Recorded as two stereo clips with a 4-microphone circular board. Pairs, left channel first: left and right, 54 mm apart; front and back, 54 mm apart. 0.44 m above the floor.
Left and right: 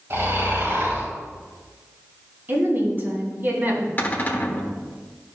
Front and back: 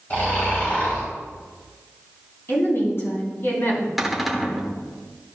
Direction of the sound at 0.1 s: 55° right.